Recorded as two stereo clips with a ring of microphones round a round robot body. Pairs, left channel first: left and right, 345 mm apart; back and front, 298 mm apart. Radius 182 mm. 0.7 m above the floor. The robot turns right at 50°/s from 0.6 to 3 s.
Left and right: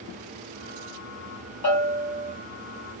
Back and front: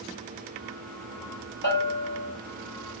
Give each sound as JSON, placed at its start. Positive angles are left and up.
{"t": 1.6, "sound": "a bell", "azimuth_deg": 130, "distance_m": 2.5}